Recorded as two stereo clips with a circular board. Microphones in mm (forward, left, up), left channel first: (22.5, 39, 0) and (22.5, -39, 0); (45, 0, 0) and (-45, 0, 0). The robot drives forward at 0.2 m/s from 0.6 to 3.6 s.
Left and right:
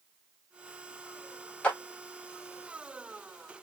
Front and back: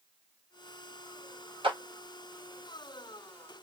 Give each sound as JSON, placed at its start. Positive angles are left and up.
{"t": 1.6, "sound": "a clap", "azimuth_deg": 165, "distance_m": 1.2}